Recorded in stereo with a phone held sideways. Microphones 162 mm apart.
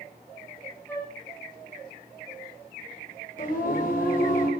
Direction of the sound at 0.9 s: 15° left (ahead or behind).